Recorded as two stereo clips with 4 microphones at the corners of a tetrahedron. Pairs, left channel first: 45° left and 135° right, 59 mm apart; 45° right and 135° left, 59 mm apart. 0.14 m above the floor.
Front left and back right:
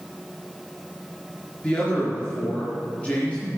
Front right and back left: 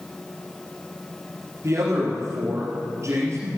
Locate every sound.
1.6 s a man speaking: 110° left, 3 m